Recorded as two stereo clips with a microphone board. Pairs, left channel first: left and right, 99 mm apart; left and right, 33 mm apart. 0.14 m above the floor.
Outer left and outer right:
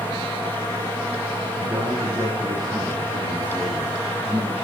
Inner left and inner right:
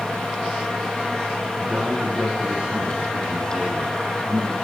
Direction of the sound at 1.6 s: 40° right (ahead or behind).